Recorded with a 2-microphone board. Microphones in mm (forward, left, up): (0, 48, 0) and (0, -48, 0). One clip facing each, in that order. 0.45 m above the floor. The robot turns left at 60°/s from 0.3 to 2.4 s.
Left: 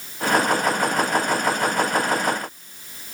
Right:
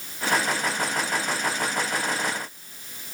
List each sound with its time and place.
Only background noise.